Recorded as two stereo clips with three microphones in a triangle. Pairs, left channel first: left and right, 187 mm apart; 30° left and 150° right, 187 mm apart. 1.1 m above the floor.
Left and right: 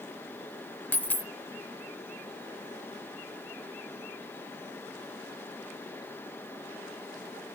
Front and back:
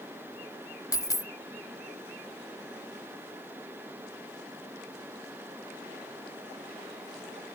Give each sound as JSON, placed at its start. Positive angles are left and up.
{"t": 0.9, "sound": "a dropped coin", "azimuth_deg": 30}